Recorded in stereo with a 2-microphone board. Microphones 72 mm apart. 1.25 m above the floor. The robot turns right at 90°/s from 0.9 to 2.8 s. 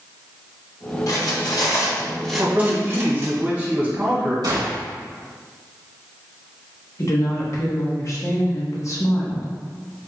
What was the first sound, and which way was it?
Cutlery clinking, 55° left (ahead or behind).